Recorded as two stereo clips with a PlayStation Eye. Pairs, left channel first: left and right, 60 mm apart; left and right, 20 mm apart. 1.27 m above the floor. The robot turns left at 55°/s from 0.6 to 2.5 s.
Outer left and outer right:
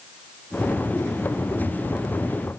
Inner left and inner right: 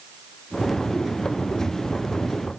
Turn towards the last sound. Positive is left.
No sound to turn to.